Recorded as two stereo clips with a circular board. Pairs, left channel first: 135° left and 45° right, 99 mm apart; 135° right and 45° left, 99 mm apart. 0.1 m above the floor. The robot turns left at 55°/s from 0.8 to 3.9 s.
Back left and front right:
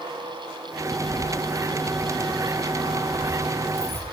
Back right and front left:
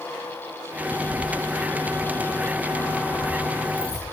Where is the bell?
I don't hear a bell.